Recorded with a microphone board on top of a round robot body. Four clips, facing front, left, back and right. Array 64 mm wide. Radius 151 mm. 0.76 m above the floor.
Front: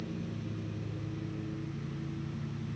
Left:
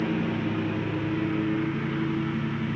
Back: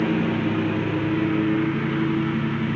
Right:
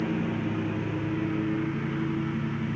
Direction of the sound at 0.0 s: 170° left.